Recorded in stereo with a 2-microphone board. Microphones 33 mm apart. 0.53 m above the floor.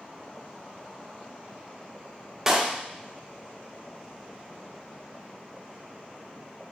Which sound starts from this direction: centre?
A clap, at 2.5 s.